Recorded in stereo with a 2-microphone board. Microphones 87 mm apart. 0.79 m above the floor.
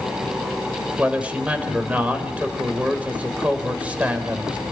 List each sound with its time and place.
1.0 s a man speaking: 15° right (ahead or behind), 3.5 m